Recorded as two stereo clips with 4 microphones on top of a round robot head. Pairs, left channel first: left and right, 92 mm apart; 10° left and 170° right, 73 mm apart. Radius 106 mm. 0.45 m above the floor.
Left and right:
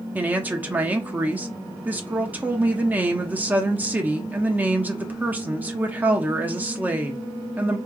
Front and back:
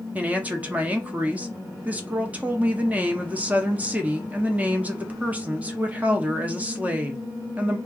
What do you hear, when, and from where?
0.1 s a woman speaking: 135° right, 0.7 m